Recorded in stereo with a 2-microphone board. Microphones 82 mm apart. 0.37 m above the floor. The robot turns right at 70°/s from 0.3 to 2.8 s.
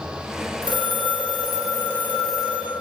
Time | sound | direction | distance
0.6 | a phone ringing | 60° left | 3.5 m